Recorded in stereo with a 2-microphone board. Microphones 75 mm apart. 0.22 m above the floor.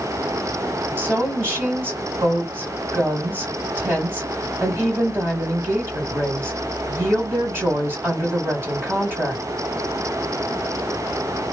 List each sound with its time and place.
1.0 s a woman speaking: 30° right (ahead or behind), 1.7 m